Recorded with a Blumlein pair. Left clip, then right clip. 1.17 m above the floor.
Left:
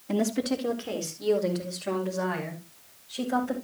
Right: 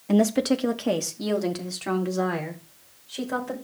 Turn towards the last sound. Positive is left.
turn(degrees=-15)